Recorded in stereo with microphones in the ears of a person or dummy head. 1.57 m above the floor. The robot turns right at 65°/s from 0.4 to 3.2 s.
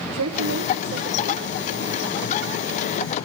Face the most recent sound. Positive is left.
turn(degrees=80)